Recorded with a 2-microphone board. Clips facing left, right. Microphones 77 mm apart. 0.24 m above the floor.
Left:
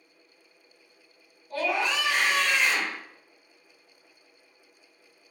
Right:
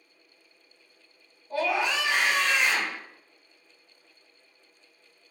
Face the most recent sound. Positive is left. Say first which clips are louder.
# right 1 dB
turn(degrees=-15)  # may be behind; listen again after turning